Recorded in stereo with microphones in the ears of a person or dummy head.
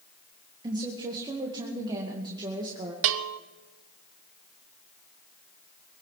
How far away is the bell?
About 0.7 m.